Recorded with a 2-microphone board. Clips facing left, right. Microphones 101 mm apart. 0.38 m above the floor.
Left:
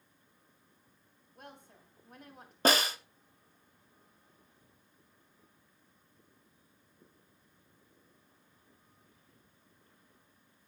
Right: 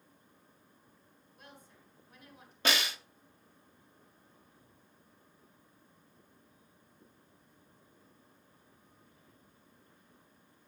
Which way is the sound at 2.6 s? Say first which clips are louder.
Left 5 dB; 40° left (ahead or behind).